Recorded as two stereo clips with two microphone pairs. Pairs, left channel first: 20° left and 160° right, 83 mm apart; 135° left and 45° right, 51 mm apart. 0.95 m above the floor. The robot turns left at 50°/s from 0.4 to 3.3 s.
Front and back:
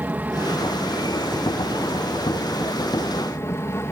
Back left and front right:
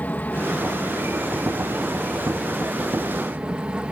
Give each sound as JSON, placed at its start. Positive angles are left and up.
{"t": 0.0, "sound": "an aircraft", "azimuth_deg": 150}